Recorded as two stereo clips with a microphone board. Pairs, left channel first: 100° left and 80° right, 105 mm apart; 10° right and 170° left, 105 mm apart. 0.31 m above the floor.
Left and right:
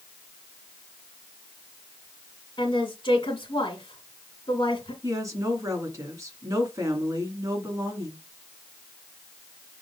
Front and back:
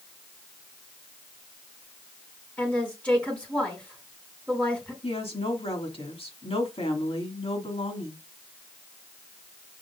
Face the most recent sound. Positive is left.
turn(degrees=-25)